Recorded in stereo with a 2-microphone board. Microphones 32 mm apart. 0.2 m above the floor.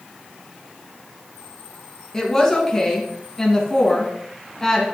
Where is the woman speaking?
15° left (ahead or behind), 2.5 m.